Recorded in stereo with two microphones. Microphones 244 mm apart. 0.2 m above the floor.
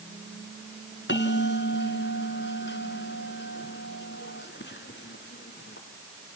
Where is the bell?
45° left (ahead or behind), 2 m.